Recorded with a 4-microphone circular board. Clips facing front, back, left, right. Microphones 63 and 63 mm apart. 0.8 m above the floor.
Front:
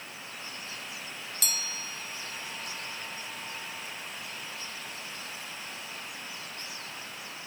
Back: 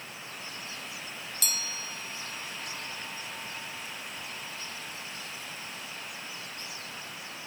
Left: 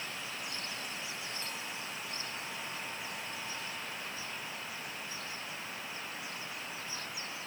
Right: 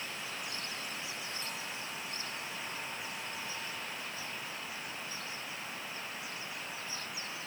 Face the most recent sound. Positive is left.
No sound to turn to.